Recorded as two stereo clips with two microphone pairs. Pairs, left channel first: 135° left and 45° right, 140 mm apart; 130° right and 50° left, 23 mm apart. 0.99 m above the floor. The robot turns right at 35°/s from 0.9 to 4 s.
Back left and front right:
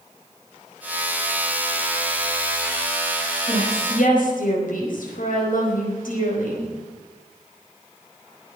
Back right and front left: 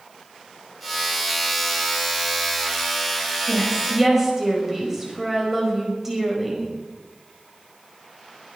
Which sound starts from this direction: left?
A woman speaking, at 3.5 s.